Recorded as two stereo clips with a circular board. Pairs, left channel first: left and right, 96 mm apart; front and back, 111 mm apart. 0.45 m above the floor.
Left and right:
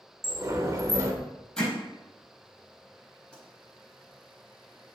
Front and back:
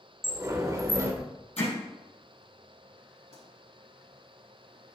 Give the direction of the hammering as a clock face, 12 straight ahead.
12 o'clock.